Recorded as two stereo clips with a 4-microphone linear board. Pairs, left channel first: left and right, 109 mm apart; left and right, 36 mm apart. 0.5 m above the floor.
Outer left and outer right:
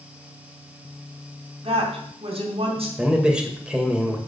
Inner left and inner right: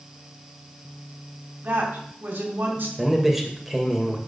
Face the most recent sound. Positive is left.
turn(degrees=-10)  # may be behind; listen again after turning